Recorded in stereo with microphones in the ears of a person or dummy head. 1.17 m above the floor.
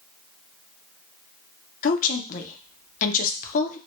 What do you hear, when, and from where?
1.8 s a woman speaking: 45° left (ahead or behind), 0.5 m